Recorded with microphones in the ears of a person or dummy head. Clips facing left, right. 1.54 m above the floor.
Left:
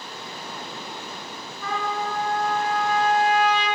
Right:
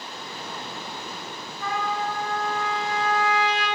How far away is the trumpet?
About 3.5 m.